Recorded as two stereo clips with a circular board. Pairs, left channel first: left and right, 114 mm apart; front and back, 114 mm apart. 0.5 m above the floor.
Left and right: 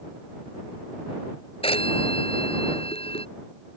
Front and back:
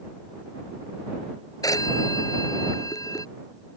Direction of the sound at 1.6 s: 55° left.